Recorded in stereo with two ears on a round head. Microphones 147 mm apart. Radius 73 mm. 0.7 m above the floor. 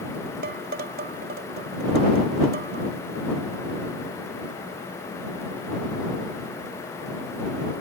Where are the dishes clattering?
60° right (ahead or behind).